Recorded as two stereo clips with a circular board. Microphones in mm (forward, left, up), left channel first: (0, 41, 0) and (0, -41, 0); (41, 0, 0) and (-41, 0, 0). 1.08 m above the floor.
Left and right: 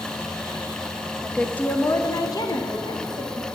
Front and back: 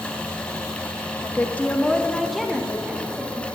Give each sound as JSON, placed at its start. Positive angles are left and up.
{"t": 1.2, "sound": "a woman speaking", "azimuth_deg": 5, "distance_m": 0.6}